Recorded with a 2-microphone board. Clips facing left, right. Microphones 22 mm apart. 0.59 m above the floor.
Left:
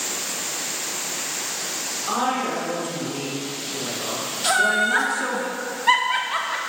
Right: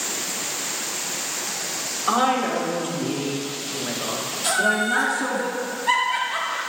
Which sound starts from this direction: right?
A woman speaking, at 2.1 s.